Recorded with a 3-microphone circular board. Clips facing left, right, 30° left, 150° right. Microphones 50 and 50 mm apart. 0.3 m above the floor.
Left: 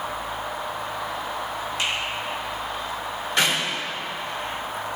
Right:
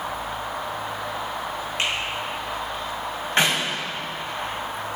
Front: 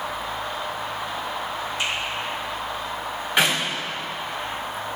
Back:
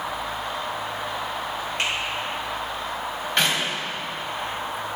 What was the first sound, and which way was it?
A finger snap, 135° right.